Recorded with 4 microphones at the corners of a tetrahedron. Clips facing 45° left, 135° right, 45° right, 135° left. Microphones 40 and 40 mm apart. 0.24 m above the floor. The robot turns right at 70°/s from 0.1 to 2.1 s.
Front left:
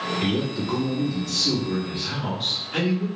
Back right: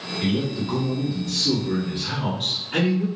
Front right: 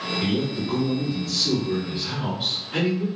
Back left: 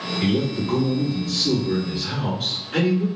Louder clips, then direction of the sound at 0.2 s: Back right 4 dB, back left 4 dB; 120° left.